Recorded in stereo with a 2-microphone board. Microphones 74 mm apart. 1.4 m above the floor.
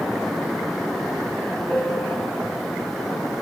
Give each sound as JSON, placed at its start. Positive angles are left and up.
{"t": 1.7, "sound": "a piano", "side_deg": 15, "distance_m": 4.0}